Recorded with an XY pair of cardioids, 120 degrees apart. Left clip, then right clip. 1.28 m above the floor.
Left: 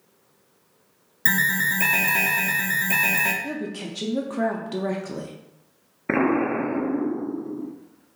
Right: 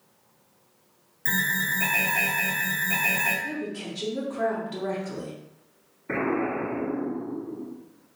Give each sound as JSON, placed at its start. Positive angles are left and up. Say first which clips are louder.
{"t": 1.2, "sound": "an alarm", "louder": "left 4 dB", "azimuth_deg": 50, "distance_m": 0.6}
{"t": 3.4, "sound": "a woman speaking", "louder": "left 1 dB", "azimuth_deg": 50, "distance_m": 0.5}
{"t": 6.1, "sound": "an explosion", "louder": "left 5 dB", "azimuth_deg": 65, "distance_m": 0.5}